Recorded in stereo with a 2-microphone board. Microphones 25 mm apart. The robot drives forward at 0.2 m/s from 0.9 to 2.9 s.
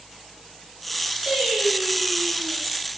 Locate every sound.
1.3 s singing: 40° right (ahead or behind), 1.1 m; by 2.6 s 30° right (ahead or behind), 1.3 m